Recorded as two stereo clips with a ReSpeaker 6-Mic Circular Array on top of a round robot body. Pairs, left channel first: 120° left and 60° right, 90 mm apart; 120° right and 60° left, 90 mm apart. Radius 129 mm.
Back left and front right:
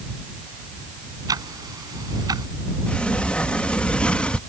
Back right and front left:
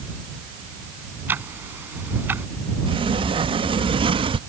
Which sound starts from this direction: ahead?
Ticking, at 1.3 s.